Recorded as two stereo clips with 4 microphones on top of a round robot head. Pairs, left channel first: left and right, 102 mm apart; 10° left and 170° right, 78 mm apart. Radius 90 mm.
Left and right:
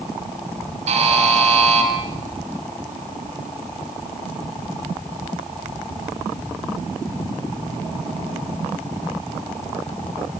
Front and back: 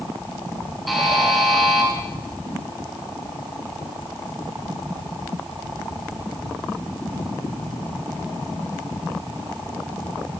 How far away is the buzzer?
About 3.5 m.